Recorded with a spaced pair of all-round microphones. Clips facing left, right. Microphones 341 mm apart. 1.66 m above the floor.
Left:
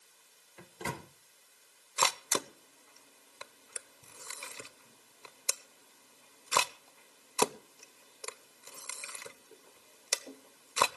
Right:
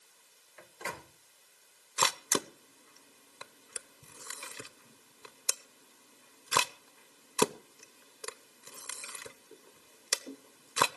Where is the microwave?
45° left (ahead or behind), 1.0 m.